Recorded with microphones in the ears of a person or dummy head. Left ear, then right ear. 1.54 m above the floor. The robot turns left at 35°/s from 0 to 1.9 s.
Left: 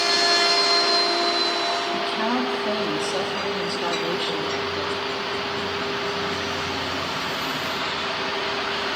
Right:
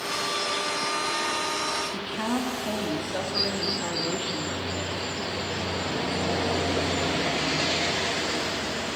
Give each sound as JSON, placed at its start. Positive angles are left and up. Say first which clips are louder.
{"t": 1.9, "sound": "a woman speaking", "louder": "left 6 dB", "side_deg": 25, "distance_m": 2.5}